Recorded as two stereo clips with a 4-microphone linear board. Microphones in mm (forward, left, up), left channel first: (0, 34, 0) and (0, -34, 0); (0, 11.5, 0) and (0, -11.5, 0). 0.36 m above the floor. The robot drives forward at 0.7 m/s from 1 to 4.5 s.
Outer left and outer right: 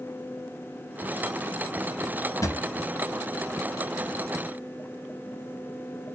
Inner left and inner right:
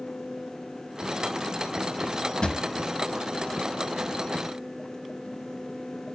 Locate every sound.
2.4 s a drawer: 55° left (ahead or behind), 0.8 m; by 2.6 s 50° left (ahead or behind), 0.8 m